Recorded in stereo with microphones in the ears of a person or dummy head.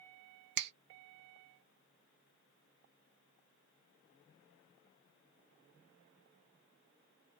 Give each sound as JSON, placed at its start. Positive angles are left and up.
{"t": 0.6, "sound": "a finger snap", "side_deg": -70, "distance_m": 0.5}